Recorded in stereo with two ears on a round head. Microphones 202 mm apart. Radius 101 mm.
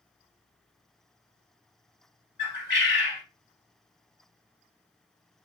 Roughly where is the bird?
Left.